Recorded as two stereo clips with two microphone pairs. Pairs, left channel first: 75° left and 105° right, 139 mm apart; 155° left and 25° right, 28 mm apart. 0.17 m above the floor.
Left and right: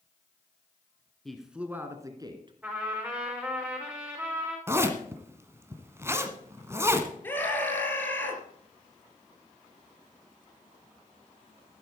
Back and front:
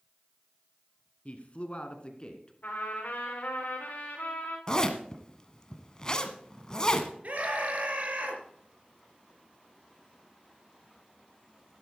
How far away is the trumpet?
About 5 m.